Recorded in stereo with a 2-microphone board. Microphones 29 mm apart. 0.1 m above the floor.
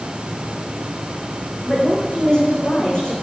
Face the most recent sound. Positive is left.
turn(degrees=35)  # may be behind; listen again after turning